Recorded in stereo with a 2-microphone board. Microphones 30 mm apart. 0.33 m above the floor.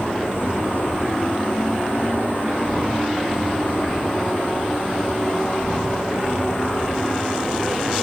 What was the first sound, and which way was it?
An insect, 80° left.